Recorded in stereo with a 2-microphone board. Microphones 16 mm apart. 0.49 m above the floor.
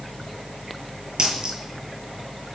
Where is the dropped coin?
65° right (ahead or behind), 6 m.